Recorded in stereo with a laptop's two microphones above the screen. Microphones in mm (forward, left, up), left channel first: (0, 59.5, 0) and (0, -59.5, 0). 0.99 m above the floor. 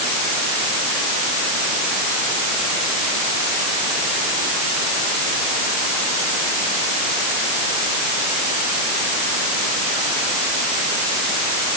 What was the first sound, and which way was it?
Only background noise.